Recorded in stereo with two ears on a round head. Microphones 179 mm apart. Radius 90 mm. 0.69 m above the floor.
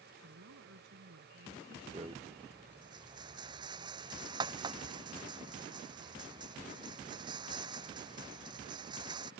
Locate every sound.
0.2 s a woman speaking: 75° right (ahead or behind)
1.9 s a rattle: 20° right (ahead or behind)